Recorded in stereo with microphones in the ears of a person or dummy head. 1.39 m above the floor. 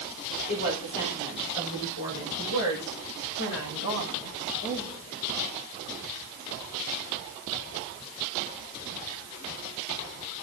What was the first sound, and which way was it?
A woman speaking, 45° left (ahead or behind).